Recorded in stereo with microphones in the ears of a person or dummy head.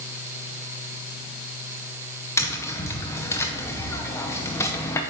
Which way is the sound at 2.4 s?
15° left (ahead or behind).